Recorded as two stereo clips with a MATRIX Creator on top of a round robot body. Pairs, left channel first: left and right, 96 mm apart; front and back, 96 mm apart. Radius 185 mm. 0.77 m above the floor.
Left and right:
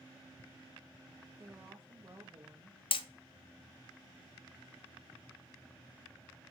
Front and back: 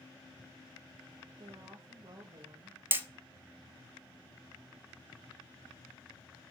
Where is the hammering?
110° left, 1.0 m.